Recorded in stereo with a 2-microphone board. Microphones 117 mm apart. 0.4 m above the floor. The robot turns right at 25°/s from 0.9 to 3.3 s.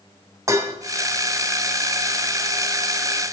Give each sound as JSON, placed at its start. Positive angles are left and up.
{"t": 0.5, "sound": "dishes clattering", "side_deg": -30, "distance_m": 1.8}